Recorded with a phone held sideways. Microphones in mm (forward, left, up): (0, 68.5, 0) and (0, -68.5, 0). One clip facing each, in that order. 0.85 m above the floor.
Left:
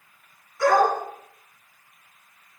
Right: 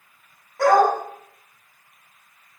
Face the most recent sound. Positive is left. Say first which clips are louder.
# right 3 dB
turn(degrees=-70)  # may be behind; listen again after turning